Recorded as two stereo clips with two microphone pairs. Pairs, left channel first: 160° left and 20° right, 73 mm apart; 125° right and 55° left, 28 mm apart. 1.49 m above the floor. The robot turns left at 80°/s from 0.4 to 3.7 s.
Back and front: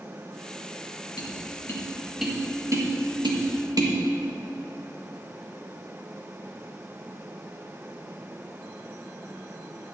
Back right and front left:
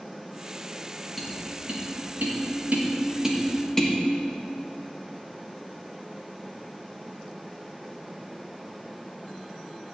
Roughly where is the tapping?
Behind left.